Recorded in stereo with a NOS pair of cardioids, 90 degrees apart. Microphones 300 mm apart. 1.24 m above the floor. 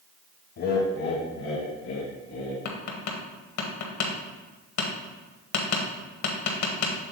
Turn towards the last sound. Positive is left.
turn(degrees=65)